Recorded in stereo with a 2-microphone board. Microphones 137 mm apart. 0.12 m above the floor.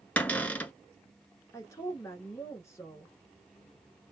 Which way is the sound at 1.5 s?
20° left (ahead or behind).